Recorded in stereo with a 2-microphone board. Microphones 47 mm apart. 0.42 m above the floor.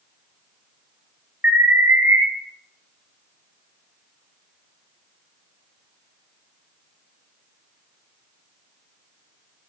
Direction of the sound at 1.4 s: 45° right (ahead or behind).